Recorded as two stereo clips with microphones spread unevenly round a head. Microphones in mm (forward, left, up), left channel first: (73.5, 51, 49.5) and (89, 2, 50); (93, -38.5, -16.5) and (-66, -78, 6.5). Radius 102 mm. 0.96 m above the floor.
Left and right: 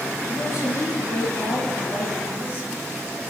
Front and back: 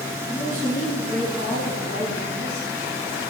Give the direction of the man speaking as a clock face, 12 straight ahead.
9 o'clock.